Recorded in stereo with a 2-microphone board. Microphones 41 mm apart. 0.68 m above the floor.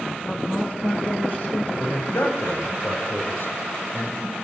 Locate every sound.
0.3 s a woman speaking: 45° left (ahead or behind), 5.5 m
1.8 s a man speaking: 80° left, 5 m